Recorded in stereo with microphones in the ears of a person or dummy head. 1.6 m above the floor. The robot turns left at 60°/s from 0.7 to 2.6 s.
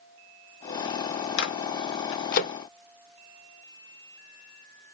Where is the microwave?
60° left (ahead or behind), 0.5 m; by 2.5 s 40° left (ahead or behind), 0.5 m.